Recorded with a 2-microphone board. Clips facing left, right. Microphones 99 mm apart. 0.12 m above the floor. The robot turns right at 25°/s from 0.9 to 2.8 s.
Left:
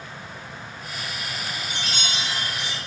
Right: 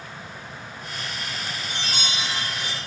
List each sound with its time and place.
1.7 s a chime: 85° right, 1.7 m; by 2.8 s 65° right (ahead or behind), 1.7 m